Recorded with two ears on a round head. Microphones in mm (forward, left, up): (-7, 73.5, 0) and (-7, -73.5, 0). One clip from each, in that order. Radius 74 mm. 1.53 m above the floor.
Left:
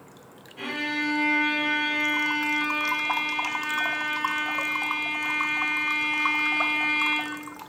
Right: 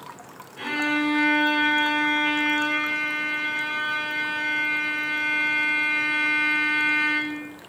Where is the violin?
45° right (ahead or behind), 1.5 m.